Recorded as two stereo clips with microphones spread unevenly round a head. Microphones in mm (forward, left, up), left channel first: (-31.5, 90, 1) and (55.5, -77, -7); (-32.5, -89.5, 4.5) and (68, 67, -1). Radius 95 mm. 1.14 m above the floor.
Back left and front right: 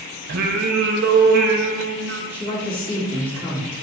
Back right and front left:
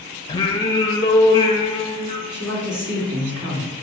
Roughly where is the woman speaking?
Ahead left.